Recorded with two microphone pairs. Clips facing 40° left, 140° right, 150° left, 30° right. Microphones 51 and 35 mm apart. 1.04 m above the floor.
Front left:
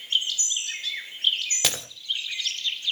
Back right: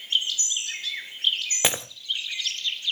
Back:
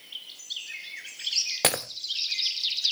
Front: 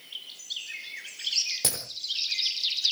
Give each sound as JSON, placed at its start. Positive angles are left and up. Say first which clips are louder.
{"t": 1.6, "sound": "breaking glass", "louder": "back right 4 dB, back 8 dB", "azimuth_deg": 160, "distance_m": 1.0}